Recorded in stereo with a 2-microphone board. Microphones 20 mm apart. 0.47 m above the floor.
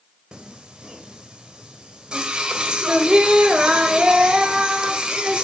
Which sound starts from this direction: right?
Singing, at 0.3 s.